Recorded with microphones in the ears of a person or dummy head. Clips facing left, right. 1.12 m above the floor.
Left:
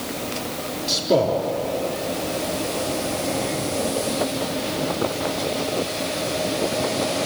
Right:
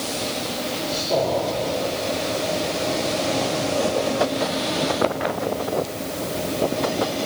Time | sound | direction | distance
0.9 | a man speaking | 55° left (ahead or behind) | 3 m